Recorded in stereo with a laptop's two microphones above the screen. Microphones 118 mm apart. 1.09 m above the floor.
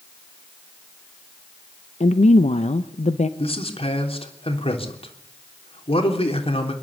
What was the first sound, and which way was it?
A woman speaking, 75° left (ahead or behind).